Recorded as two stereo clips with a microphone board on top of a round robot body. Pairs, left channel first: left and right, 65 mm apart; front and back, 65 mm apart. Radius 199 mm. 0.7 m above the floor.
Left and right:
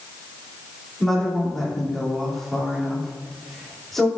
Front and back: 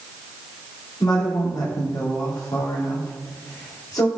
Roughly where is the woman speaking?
Ahead.